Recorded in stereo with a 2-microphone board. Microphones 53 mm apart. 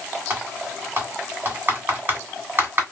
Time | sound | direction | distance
0.3 | typing on a keyboard | 40° right (ahead or behind) | 1.8 m